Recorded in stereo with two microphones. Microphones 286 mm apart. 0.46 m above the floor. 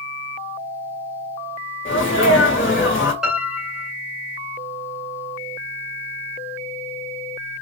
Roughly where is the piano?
Centre.